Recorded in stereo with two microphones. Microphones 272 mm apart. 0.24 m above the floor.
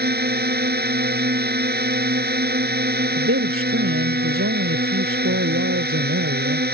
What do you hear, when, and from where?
0.0 s a drone: 35° right (ahead or behind)
3.2 s a man speaking: 55° right (ahead or behind)